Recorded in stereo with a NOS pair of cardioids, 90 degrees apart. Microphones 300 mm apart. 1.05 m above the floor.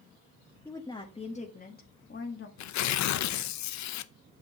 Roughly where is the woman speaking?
Ahead.